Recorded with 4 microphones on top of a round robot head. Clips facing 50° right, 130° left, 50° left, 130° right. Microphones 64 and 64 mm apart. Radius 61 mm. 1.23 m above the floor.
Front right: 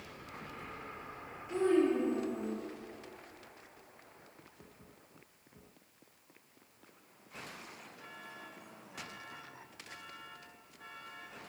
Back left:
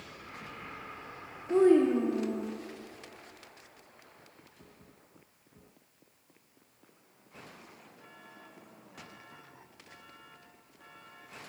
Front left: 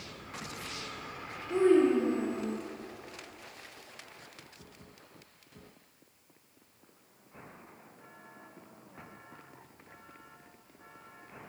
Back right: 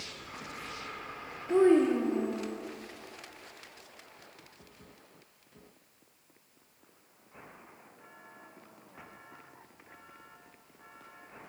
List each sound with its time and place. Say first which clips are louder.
1.5 s a child speaking: back left 6 dB, back right 1 dB; 175° left, 0.7 m; by 2.5 s 150° left, 1.3 m